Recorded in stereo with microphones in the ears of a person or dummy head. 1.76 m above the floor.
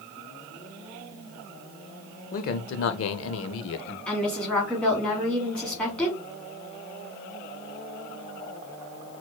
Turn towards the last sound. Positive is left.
turn(degrees=5)  # may be behind; listen again after turning